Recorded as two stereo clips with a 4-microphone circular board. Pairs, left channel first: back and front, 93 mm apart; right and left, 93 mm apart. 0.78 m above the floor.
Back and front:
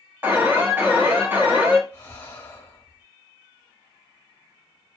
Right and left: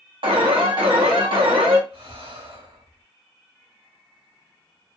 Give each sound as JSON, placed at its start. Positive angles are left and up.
{"t": 0.2, "sound": "an alarm", "azimuth_deg": 65, "distance_m": 0.8}
{"t": 1.9, "sound": "breathing", "azimuth_deg": 120, "distance_m": 0.9}